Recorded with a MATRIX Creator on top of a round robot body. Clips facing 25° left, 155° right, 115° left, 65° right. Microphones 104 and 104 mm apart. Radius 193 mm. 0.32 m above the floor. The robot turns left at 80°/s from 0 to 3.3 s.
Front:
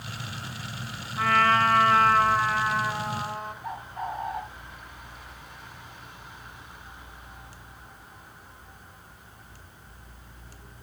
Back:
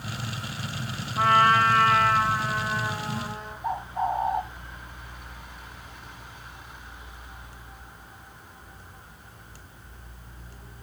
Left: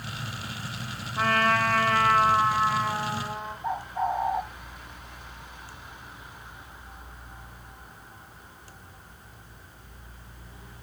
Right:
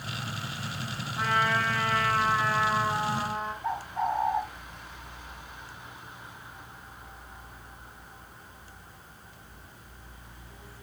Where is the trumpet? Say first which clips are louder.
Back 2 dB, left 3 dB; 150° left, 3.5 m; by 3.5 s 20° right, 3.5 m.